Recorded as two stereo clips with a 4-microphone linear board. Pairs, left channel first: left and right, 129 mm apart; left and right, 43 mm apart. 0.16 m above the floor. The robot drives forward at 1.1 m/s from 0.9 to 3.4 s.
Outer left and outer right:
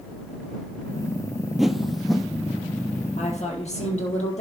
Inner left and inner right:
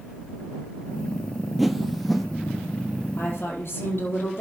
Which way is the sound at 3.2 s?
60° left (ahead or behind).